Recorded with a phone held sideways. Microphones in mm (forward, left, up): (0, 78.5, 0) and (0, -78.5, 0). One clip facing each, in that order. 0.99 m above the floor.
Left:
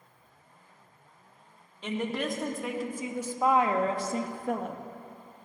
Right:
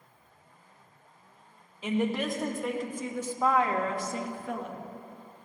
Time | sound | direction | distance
1.8 | a woman speaking | 5° right (ahead or behind) | 1.8 m